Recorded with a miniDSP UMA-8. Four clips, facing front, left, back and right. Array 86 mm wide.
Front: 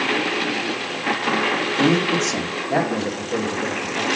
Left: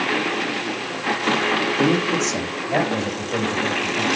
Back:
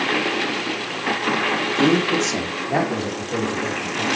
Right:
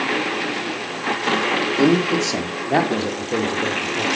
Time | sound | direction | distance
1.8 | a man speaking | 105° right | 1.4 m